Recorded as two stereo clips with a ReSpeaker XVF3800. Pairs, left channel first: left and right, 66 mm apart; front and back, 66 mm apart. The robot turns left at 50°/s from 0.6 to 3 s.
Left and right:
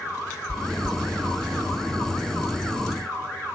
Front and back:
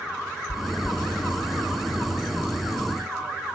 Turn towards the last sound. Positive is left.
turn(degrees=-50)